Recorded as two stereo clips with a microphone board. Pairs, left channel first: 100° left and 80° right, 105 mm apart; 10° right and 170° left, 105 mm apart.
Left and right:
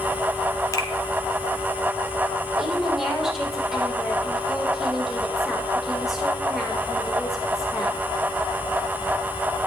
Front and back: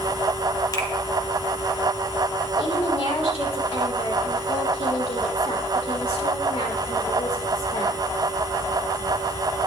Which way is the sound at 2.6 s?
10° left.